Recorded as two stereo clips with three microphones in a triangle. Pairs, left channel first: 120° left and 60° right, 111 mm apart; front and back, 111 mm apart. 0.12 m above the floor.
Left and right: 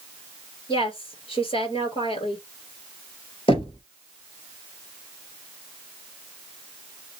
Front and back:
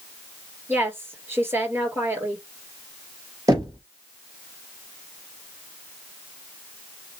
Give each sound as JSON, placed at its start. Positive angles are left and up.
{"t": 0.7, "sound": "a woman speaking", "azimuth_deg": 115, "distance_m": 2.0}
{"t": 3.5, "sound": "knocking", "azimuth_deg": 130, "distance_m": 2.5}